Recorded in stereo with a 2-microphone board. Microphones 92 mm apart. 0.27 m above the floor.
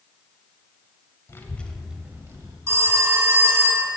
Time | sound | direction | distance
1.3 | a child speaking | 30° left (ahead or behind) | 0.7 m
2.7 | a phone ringing | 30° right (ahead or behind) | 1.4 m